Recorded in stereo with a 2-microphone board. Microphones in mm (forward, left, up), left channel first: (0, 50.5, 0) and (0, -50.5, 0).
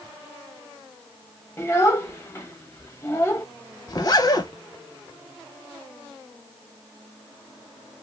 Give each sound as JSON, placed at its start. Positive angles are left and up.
{"t": 1.6, "sound": "a child speaking", "side_deg": 25, "distance_m": 0.6}
{"t": 3.9, "sound": "a zipper", "side_deg": 40, "distance_m": 0.6}